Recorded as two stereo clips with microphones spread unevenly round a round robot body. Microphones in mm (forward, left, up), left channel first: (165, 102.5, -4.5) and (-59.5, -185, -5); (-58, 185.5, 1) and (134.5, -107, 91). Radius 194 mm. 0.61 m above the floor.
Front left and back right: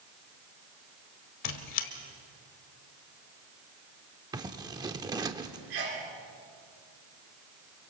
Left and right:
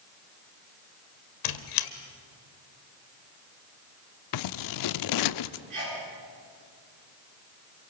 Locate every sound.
1.4 s a squeak: 100° left, 1.4 m
4.3 s scissors: 150° left, 0.5 m
5.7 s a sneeze: 100° right, 8.5 m